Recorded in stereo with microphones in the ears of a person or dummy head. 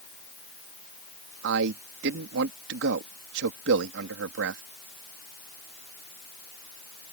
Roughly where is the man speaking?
Right.